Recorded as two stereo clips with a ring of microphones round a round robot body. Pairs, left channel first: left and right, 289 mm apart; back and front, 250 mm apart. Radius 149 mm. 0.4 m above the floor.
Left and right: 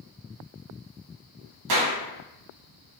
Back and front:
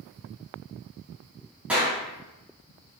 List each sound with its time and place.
1.7 s a clap: 85° right, 2.5 m